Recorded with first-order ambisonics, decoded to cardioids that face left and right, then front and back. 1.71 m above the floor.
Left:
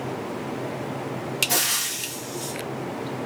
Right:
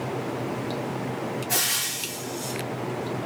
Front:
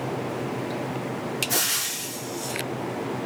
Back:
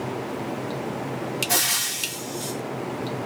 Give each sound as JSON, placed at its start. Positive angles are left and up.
{"t": 1.5, "sound": "frying", "azimuth_deg": 140, "distance_m": 2.0}